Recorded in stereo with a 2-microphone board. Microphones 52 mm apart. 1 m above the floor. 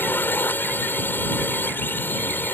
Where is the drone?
45° left (ahead or behind).